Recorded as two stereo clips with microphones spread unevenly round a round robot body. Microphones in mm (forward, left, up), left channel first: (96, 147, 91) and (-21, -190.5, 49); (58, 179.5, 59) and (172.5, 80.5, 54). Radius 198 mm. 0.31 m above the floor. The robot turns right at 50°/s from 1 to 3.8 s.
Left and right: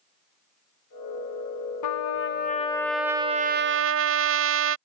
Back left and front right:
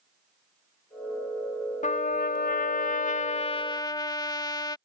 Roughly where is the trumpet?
Left.